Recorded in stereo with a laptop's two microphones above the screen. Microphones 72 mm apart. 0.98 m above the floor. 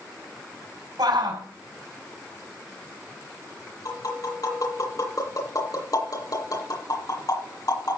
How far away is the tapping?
About 8 m.